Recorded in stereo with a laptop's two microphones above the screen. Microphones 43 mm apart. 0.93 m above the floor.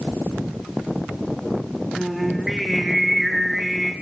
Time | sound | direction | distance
1.9 | singing | 5° right (ahead or behind) | 1.5 m